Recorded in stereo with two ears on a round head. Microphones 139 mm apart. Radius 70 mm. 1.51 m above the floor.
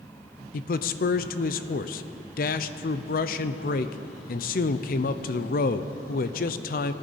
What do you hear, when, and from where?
0.5 s a man speaking: 60° left (ahead or behind), 0.5 m